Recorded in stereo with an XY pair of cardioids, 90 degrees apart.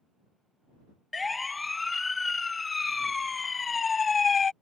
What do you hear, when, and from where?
1.1 s a siren: 25° left; by 4.5 s 45° left